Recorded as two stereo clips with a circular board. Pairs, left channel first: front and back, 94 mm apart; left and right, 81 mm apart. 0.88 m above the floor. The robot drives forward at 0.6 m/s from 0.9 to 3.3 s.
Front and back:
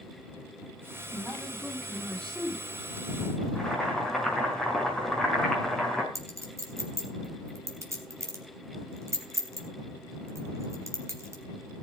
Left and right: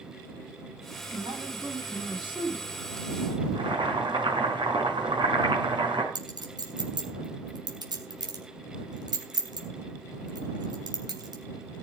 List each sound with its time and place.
1.1 s a man speaking: 70° right, 8.5 m; by 2.7 s 80° right, 8 m
3.5 s boiling: 80° right, 5.5 m
6.2 s a clink: 120° right, 3 m